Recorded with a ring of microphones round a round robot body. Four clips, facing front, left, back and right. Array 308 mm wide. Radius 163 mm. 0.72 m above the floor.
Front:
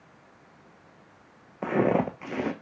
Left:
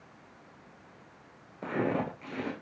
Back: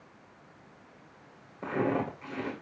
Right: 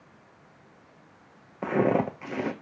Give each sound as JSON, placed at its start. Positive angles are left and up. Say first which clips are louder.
{"t": 1.6, "sound": "footsteps", "louder": "right 7 dB, front 6 dB", "azimuth_deg": -40, "distance_m": 0.8}